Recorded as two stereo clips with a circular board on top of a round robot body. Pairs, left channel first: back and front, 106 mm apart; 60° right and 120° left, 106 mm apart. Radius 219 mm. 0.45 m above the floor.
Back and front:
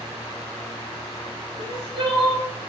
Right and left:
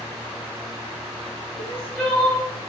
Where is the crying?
20° left, 1.5 m.